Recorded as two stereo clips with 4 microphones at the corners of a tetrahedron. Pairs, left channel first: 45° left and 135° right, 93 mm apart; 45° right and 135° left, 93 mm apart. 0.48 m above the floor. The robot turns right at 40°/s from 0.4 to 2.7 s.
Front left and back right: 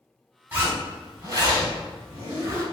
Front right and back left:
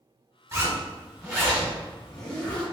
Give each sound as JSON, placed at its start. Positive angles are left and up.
{"t": 0.5, "sound": "a zipper", "azimuth_deg": 160, "distance_m": 1.5}